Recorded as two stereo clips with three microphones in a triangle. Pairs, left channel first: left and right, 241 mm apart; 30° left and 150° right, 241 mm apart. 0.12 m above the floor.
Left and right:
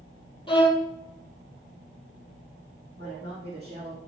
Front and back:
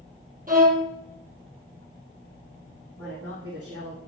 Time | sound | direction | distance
0.5 | a violin | 160° left | 2.5 m
3.0 | a man speaking | 125° right | 4.5 m